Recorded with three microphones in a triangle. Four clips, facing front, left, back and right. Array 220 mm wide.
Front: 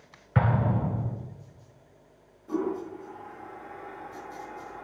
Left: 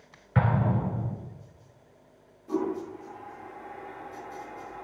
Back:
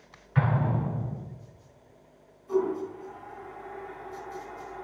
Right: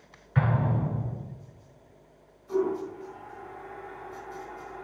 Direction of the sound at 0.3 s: 30° left.